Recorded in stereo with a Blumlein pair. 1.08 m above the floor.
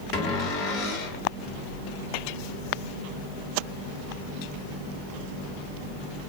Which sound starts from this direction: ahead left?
A cupboard door, at 0.1 s.